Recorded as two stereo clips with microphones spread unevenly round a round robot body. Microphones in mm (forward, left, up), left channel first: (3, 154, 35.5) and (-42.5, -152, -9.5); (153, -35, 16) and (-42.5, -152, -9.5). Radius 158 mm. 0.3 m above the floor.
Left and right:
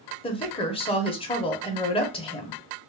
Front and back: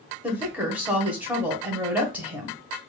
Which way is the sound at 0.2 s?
150° left.